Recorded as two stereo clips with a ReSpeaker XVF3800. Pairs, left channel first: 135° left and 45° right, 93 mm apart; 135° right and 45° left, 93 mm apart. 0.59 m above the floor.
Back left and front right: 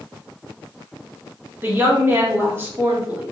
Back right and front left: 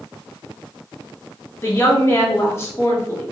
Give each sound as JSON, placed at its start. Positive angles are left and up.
{"t": 1.6, "sound": "a woman speaking", "azimuth_deg": -95, "distance_m": 1.0}